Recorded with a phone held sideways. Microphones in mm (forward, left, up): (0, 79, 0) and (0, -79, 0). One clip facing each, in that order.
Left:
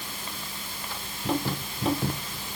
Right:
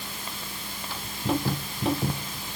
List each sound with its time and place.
Only background noise.